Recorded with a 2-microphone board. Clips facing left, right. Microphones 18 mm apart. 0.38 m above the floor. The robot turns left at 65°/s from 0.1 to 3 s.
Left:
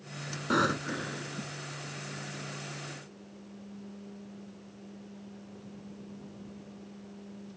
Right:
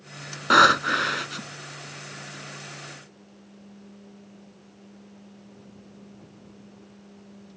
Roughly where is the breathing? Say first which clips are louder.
Right 12 dB; ahead right.